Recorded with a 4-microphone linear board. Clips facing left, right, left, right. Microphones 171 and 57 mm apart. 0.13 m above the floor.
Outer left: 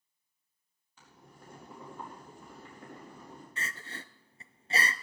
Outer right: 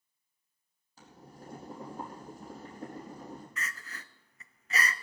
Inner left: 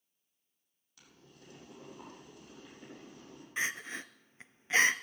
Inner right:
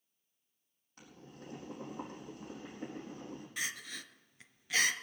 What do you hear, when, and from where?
1.0 s boiling: 35° right (ahead or behind), 4.5 m
3.6 s crying: 30° left (ahead or behind), 0.6 m